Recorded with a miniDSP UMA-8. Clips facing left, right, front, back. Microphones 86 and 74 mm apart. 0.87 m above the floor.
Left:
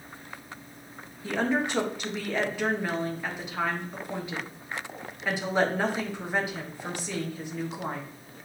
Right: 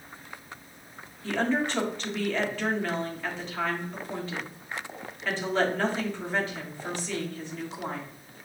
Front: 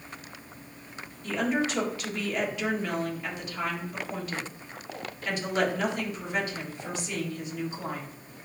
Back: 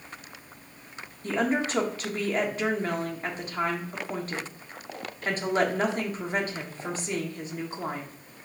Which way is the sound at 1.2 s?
160° left.